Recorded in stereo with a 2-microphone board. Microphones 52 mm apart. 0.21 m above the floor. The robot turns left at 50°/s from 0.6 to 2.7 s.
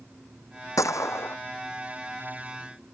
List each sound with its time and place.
0.8 s a gunshot: 80° left; by 1.4 s 55° left (ahead or behind)